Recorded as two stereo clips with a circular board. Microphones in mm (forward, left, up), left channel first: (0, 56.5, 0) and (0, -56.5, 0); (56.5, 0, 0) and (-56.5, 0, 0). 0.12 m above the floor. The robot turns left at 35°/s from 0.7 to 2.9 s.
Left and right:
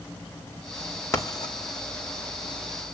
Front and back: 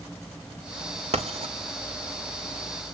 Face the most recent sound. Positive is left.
turn(degrees=95)